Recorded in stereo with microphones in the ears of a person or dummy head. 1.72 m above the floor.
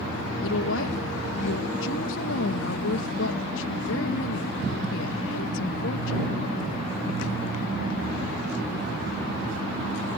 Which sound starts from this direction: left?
A woman speaking, at 0.4 s.